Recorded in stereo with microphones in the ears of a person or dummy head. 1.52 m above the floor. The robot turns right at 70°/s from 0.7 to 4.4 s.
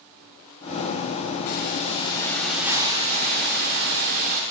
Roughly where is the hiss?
Left.